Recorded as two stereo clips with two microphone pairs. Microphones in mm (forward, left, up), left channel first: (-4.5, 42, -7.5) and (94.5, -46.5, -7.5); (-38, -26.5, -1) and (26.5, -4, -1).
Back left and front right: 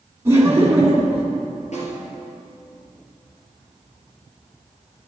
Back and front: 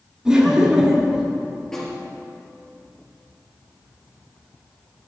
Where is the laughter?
40° right, 1.3 m.